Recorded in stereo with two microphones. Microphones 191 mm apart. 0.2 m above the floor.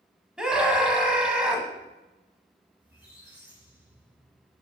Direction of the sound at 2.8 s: 5° right (ahead or behind).